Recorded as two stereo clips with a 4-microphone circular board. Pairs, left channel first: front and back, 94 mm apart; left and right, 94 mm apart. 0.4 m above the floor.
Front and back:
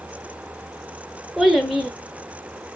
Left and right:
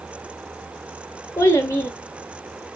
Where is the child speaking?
90° left, 0.6 m.